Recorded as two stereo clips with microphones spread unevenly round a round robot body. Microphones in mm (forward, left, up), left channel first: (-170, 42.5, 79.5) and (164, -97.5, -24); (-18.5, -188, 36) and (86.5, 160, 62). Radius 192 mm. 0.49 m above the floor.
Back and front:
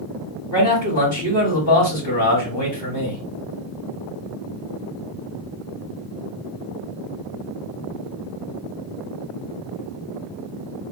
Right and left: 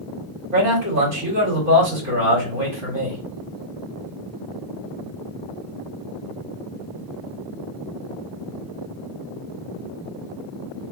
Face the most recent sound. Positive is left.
turn(degrees=110)